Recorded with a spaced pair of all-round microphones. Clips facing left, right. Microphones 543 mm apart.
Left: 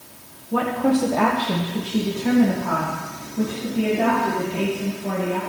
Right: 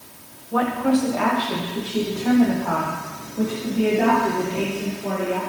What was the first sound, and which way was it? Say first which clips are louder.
A woman speaking: even; 45° left (ahead or behind).